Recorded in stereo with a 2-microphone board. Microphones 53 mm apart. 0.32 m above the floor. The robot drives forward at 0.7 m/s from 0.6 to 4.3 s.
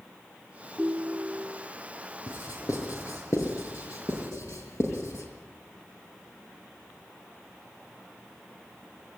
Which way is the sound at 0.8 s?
20° right (ahead or behind).